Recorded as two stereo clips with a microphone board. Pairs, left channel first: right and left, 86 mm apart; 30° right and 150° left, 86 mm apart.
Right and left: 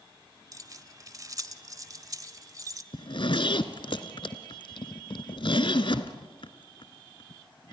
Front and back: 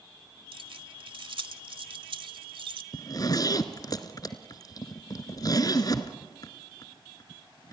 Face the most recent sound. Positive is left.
turn(degrees=-75)